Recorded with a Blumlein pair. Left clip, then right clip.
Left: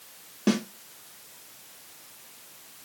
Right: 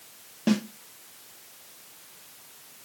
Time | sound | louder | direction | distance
0.5 | a snare drum | even | 5° left | 1.0 m